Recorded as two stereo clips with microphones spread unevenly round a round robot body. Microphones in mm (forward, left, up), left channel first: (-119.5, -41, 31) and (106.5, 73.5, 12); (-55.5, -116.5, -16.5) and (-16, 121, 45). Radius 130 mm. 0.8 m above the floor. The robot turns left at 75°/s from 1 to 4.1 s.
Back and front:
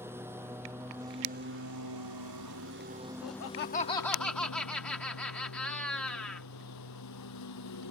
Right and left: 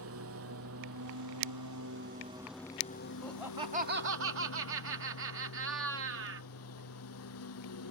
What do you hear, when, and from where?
0.0 s a lawn mower: 110° left; by 7.9 s 125° right
3.2 s laughter: 175° right; by 6.5 s 120° left